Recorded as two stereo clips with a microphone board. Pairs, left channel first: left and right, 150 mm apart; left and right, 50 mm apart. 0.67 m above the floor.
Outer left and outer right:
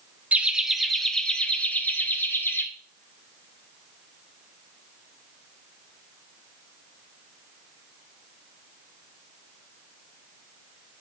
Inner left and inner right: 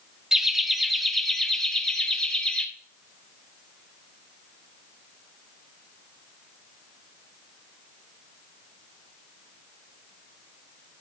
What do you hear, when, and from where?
0.3 s laughter: 10° right (ahead or behind), 0.9 m; by 2.6 s 15° left (ahead or behind), 1.9 m